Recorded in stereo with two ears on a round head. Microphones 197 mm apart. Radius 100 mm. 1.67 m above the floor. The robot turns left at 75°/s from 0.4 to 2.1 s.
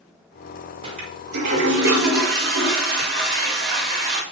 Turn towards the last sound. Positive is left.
turn(degrees=-120)